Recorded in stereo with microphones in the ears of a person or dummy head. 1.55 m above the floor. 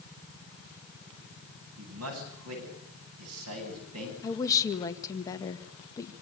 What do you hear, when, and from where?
1.8 s a man speaking: 85° right, 10 m
4.2 s a woman speaking: 20° left (ahead or behind), 1.9 m